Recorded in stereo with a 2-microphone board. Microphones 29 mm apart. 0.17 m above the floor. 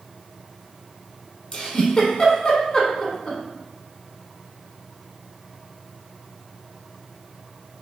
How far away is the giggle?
About 0.7 m.